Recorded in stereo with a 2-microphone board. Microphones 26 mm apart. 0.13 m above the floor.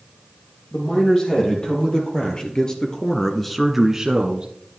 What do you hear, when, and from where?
0.7 s a man speaking: 35° left (ahead or behind), 4.5 m; by 4.5 s 35° right (ahead or behind), 1.4 m